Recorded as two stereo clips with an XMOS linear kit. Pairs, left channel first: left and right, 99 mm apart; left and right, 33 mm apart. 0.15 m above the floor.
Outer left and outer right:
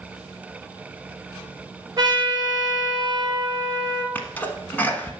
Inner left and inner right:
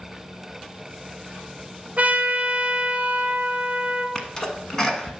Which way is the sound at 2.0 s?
40° right (ahead or behind).